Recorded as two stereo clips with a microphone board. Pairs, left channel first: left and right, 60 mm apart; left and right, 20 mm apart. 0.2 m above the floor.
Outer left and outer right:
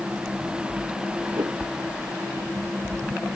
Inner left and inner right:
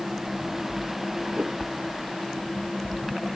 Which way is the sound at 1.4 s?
75° right (ahead or behind).